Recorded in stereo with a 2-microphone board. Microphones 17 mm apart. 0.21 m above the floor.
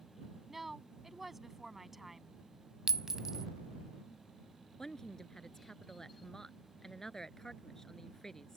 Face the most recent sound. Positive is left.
turn(degrees=30)  # may be behind; listen again after turning